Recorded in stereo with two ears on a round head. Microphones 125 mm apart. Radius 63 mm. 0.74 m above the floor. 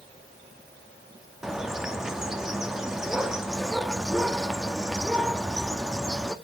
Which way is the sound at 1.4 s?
5° right (ahead or behind).